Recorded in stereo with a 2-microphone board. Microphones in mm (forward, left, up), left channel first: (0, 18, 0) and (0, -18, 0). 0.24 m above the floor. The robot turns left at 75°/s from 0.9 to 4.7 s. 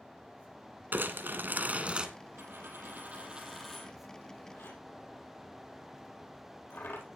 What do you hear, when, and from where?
0.9 s crumpling: 70° right, 1.9 m; by 2.1 s 155° right, 1.9 m
2.4 s a dropped coin: 80° right, 4.5 m; by 7.0 s 80° left, 4.5 m